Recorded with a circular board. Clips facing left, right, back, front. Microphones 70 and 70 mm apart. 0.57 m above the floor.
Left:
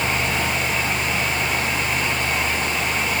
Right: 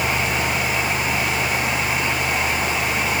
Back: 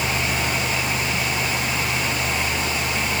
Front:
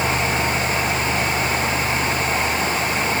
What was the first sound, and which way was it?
Only background noise.